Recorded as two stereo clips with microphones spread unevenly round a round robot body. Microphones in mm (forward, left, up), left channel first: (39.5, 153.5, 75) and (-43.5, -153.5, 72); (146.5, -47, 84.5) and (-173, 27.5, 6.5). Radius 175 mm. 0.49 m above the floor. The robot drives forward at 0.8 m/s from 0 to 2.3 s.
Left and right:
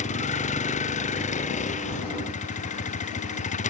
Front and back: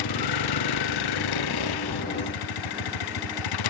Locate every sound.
0.0 s a vehicle: 5° left